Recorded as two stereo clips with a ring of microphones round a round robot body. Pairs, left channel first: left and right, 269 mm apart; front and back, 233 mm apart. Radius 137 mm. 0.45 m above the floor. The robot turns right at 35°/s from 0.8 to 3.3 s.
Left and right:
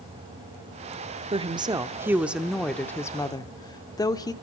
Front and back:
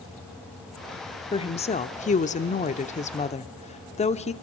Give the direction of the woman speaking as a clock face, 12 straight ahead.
1 o'clock.